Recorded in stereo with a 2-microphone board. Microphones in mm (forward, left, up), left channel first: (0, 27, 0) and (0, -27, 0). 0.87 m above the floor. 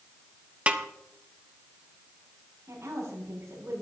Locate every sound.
0.7 s a snare drum: 20° right (ahead or behind), 1.0 m
2.7 s a woman speaking: 55° right (ahead or behind), 6 m